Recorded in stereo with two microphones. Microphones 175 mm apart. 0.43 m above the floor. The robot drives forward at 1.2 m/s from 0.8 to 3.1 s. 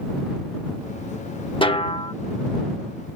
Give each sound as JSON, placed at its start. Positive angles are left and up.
{"t": 1.6, "sound": "a snare drum", "side_deg": 30}